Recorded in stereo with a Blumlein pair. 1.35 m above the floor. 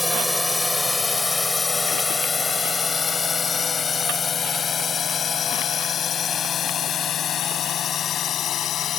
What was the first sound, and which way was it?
A drone, 5° left.